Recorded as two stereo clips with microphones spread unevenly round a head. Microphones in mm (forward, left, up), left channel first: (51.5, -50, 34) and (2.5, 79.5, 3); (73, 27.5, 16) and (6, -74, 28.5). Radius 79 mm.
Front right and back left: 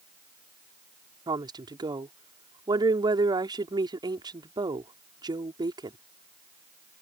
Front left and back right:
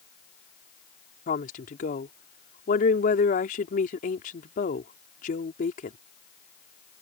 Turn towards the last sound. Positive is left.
turn(degrees=50)